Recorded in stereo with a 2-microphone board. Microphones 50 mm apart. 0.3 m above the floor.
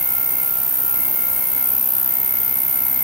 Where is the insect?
85° right, 0.8 m.